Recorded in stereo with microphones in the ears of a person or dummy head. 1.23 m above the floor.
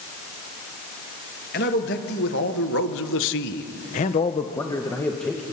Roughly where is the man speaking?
Left.